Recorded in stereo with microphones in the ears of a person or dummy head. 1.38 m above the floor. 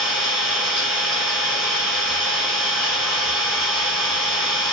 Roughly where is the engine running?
Centre.